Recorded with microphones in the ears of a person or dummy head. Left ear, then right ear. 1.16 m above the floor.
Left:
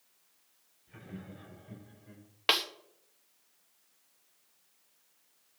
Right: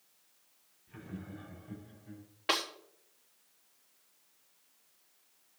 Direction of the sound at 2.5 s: 35° left (ahead or behind).